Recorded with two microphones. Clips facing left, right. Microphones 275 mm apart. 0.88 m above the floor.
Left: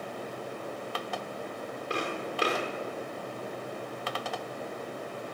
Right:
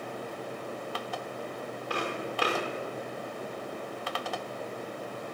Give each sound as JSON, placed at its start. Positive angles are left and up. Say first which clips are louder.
{"t": 1.9, "sound": "footsteps", "louder": "even", "side_deg": 25, "distance_m": 5.5}